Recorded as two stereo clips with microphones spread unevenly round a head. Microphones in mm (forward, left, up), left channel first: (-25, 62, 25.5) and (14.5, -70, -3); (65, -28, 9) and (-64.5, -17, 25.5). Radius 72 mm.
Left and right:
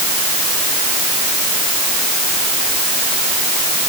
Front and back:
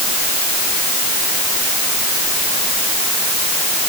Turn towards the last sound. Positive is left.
No sound to turn to.